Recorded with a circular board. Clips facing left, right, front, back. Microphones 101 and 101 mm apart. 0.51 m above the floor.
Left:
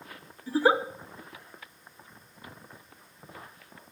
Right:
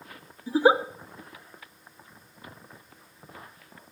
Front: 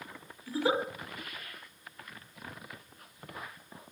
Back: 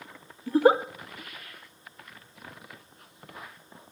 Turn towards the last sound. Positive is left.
turn(degrees=-160)